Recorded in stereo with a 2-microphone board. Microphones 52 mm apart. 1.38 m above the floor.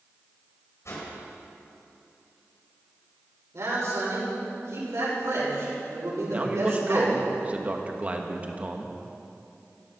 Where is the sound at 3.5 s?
80° right, 6 m.